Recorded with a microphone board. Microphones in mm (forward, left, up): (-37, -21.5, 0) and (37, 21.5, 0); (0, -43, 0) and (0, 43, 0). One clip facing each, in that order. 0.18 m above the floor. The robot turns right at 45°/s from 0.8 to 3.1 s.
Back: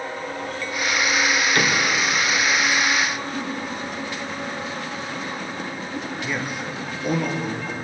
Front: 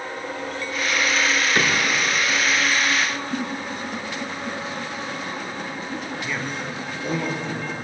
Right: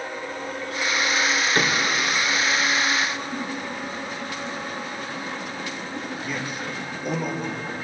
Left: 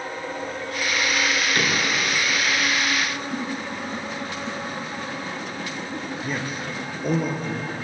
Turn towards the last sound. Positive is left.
turn(degrees=130)